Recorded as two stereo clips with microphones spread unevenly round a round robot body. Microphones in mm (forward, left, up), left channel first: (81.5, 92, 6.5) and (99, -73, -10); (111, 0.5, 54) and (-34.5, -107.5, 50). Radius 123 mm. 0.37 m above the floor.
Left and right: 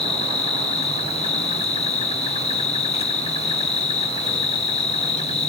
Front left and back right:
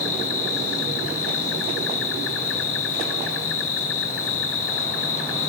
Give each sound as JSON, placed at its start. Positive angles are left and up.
{"t": 0.0, "sound": "an insect", "azimuth_deg": 40, "distance_m": 0.7}